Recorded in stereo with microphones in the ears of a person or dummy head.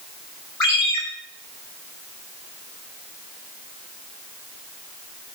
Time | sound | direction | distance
0.6 | a ringtone | 20° left (ahead or behind) | 4.5 m